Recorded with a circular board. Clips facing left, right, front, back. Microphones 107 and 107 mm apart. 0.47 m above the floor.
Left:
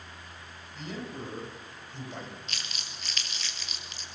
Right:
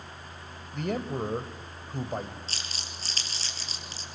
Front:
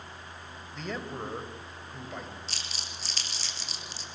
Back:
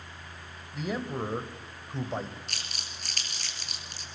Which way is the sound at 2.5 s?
145° right.